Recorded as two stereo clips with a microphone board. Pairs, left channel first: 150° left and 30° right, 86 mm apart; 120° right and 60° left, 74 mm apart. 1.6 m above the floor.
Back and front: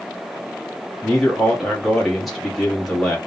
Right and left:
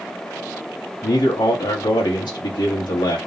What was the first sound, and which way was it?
A man speaking, 120° right.